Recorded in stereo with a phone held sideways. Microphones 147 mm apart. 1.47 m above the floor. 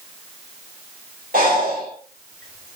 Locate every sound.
1.3 s breathing: 80° right, 3.5 m